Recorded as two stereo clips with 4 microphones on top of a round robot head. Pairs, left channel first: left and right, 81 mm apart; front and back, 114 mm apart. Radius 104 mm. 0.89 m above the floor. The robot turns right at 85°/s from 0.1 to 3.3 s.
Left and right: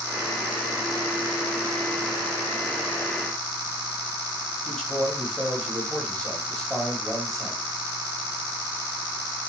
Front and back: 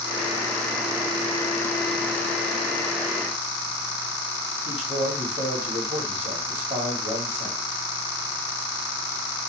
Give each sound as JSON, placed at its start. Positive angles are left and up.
{"t": 4.7, "sound": "a man speaking", "azimuth_deg": 180, "distance_m": 1.8}